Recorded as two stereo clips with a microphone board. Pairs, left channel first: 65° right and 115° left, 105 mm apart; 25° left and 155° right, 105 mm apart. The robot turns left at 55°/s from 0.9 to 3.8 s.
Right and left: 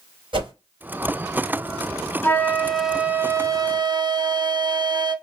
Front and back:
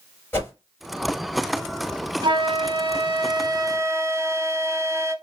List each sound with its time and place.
0.3 s a whoosh: 90° left, 2.5 m
2.2 s a flute: 130° right, 0.5 m; by 5.2 s 145° left, 0.5 m